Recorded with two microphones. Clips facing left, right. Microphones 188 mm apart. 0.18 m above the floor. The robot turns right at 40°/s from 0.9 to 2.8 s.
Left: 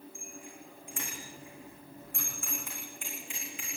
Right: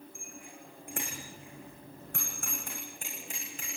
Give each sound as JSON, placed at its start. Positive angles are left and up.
{"t": 0.1, "sound": "a bicycle bell", "side_deg": -60, "distance_m": 9.0}